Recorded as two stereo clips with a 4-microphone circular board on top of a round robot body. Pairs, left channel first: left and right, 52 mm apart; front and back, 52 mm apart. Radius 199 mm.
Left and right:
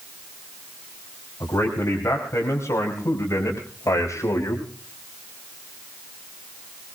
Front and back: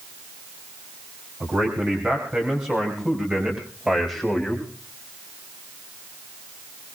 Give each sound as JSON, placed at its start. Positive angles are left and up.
{"t": 1.4, "sound": "a man speaking", "azimuth_deg": 130, "distance_m": 5.5}